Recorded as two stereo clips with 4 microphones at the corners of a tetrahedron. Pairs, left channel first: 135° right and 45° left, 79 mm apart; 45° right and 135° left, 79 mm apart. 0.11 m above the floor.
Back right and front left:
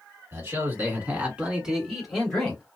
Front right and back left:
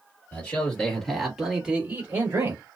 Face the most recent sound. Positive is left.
turn(degrees=155)